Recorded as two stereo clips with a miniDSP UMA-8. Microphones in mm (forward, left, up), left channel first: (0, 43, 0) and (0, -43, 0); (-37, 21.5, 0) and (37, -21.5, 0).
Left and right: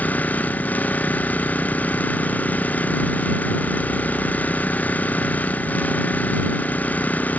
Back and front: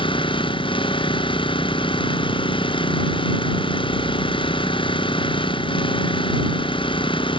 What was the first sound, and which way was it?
An engine running, 160° left.